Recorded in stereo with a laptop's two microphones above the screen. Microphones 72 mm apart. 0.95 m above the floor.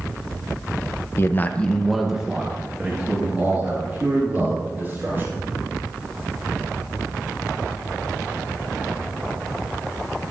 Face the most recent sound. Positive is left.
turn(degrees=-25)  # may be behind; listen again after turning